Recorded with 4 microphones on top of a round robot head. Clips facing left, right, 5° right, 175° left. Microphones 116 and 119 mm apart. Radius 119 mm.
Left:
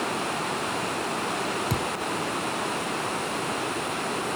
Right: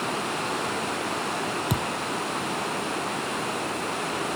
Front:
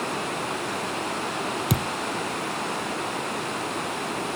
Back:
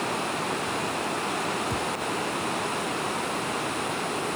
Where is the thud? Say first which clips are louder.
Even, front 2 dB; 10° right.